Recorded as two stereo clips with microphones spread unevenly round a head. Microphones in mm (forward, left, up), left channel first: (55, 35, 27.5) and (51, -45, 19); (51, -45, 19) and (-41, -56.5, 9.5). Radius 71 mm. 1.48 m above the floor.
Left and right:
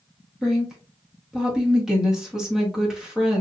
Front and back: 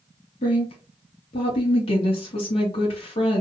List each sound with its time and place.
0.4 s a woman speaking: 10° right, 1.3 m